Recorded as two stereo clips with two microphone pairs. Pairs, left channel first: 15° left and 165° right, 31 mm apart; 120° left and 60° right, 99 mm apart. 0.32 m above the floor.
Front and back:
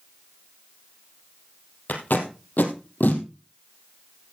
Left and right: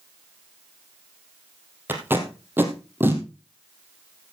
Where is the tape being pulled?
5° left, 2.5 m.